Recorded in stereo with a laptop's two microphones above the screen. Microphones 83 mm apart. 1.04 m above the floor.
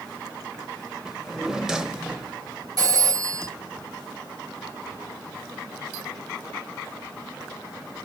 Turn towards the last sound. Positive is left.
turn(degrees=-50)  # may be behind; listen again after turning